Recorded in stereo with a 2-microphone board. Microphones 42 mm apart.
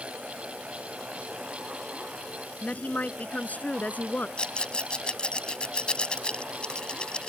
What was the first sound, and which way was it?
A woman speaking, 40° left (ahead or behind).